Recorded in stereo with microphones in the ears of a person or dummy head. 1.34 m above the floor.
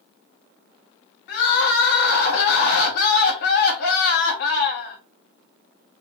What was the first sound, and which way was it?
Crying, 65° left (ahead or behind).